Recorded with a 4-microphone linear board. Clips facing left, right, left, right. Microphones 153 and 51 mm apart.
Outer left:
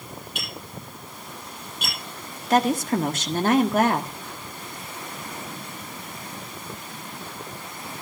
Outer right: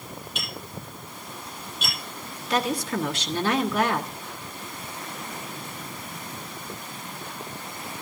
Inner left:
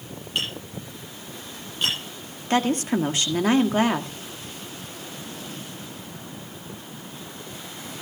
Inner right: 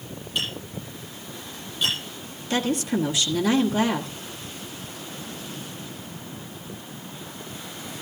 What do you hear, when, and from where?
0.3 s tapping: 55° left (ahead or behind), 10 m
2.5 s a woman speaking: 45° left (ahead or behind), 1.4 m